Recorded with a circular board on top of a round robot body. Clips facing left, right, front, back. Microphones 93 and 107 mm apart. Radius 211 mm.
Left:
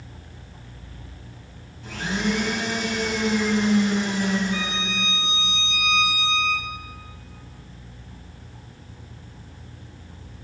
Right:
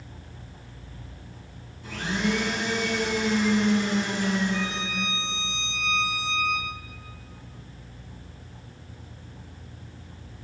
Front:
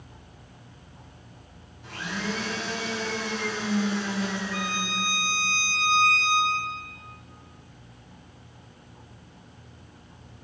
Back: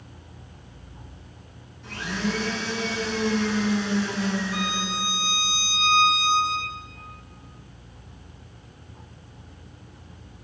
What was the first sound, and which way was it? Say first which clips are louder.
A blender: left 1 dB, back 4 dB; 75° left.